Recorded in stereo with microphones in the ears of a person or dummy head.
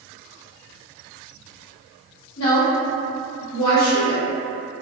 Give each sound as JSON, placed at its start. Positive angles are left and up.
{"t": 2.4, "sound": "a woman speaking", "side_deg": 75, "distance_m": 1.6}